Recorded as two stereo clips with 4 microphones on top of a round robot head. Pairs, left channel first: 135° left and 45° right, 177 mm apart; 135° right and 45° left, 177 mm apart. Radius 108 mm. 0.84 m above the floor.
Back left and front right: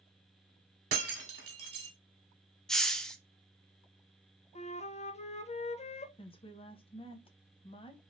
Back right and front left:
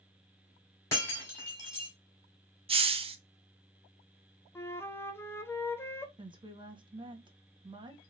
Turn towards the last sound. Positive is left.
turn(degrees=95)